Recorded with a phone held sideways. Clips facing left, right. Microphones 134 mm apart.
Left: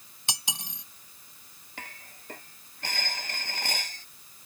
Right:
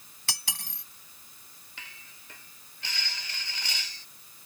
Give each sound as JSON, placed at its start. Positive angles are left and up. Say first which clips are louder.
{"t": 0.3, "sound": "cutlery clinking", "louder": "left 3 dB", "side_deg": 20}
{"t": 1.8, "sound": "dishes clattering", "louder": "left 7 dB", "side_deg": 50}